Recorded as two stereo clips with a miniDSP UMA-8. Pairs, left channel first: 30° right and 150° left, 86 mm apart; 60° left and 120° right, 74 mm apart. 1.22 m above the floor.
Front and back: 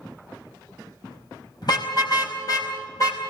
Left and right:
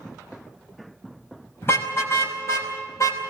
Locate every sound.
1.6 s a car horn: straight ahead, 5 m; by 3.2 s 15° left, 4.5 m